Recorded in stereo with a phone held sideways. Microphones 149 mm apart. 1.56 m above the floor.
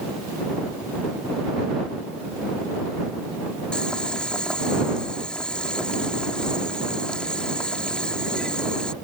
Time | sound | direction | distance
3.7 | boiling | 5° left (ahead or behind) | ?